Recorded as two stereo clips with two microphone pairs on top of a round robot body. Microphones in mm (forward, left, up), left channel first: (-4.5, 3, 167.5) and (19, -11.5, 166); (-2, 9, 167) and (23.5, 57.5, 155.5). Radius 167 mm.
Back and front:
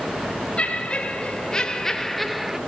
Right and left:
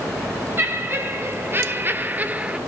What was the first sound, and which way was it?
Laughter, 95° left.